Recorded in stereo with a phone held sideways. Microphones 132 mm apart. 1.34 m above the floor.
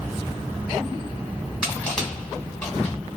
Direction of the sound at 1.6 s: 10° left (ahead or behind).